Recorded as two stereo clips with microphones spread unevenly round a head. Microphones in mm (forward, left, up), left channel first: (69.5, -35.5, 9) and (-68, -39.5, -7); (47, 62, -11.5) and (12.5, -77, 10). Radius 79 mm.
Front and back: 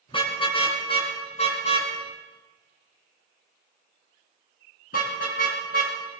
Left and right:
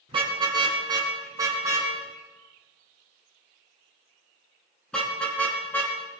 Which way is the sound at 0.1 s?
50° right.